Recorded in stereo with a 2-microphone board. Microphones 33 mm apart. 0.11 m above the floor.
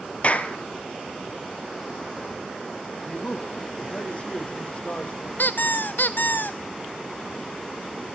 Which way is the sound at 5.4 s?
70° left (ahead or behind).